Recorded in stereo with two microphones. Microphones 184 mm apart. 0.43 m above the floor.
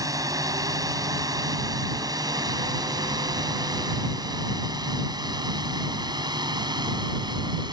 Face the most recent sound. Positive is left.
turn(degrees=-25)  # may be behind; listen again after turning